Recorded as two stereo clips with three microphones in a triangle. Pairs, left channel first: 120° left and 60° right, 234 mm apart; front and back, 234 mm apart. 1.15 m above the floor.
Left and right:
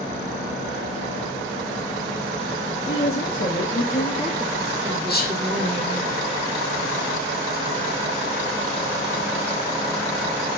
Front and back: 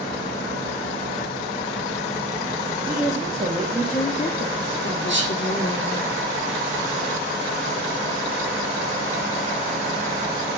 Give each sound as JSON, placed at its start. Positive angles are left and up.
{"t": 2.9, "sound": "a woman speaking", "azimuth_deg": 130, "distance_m": 1.0}
{"t": 5.1, "sound": "whispering", "azimuth_deg": 160, "distance_m": 0.9}